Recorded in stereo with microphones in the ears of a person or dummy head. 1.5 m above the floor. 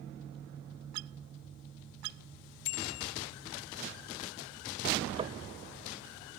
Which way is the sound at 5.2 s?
35° right (ahead or behind).